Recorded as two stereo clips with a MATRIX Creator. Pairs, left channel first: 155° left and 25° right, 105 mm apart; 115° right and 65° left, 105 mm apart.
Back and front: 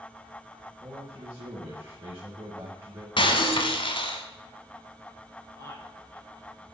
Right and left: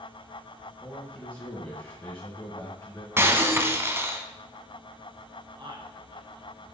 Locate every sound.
0.8 s a man speaking: 75° right, 2.0 m
3.2 s breaking glass: 130° left, 1.0 m
5.6 s a man speaking: 100° left, 3 m